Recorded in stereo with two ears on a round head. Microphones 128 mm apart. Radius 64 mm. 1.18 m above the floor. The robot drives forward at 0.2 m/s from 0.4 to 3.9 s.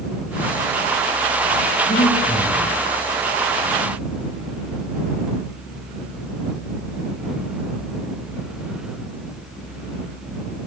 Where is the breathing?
65° left (ahead or behind), 8 m.